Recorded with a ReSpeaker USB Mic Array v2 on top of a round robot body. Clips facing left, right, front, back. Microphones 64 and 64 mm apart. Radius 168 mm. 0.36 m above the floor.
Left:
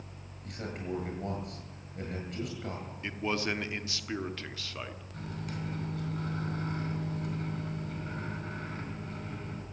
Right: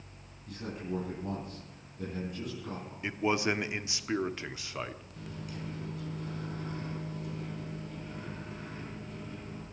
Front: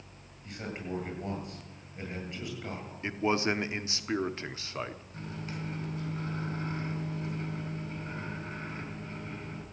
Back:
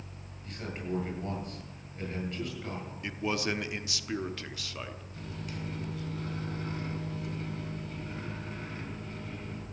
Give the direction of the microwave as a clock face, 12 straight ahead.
10 o'clock.